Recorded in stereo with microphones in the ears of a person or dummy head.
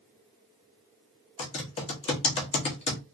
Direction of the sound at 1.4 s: 35° left (ahead or behind).